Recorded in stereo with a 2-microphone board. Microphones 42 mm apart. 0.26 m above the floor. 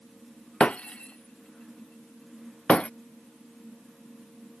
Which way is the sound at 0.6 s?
25° left (ahead or behind).